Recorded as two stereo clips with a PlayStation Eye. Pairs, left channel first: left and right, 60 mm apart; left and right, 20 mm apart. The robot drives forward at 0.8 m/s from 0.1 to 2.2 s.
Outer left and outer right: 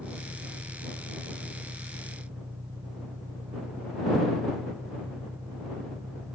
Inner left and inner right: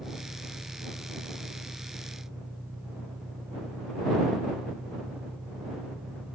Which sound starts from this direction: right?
An engine running, at 0.0 s.